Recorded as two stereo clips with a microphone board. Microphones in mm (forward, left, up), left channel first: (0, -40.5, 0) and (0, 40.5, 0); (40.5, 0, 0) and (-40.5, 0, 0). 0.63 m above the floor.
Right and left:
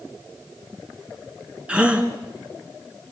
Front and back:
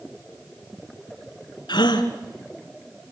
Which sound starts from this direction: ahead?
A gasp, at 1.7 s.